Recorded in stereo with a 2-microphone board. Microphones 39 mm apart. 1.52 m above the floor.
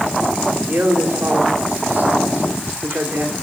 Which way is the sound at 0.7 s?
45° right (ahead or behind).